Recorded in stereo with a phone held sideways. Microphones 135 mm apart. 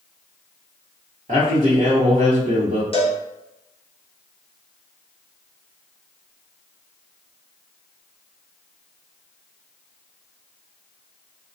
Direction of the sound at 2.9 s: 45° left (ahead or behind).